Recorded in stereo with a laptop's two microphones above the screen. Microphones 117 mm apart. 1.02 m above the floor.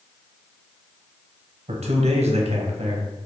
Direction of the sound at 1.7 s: 65° right (ahead or behind).